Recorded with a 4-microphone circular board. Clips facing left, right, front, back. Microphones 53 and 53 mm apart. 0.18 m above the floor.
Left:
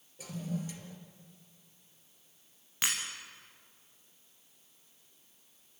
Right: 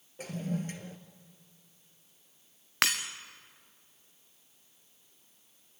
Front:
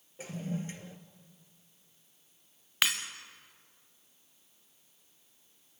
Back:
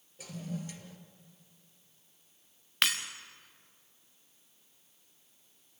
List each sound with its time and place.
0.2 s a toilet flushing: 55° right, 1.5 m
2.8 s breaking glass: 85° right, 2 m